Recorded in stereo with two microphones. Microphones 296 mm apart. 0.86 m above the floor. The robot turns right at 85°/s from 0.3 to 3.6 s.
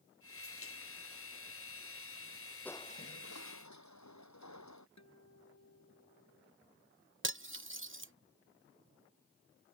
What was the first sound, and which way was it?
Crushing, 5° left.